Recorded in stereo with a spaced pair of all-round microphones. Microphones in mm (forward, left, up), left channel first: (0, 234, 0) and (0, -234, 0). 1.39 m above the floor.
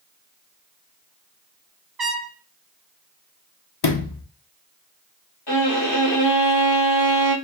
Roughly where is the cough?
No cough in this recording.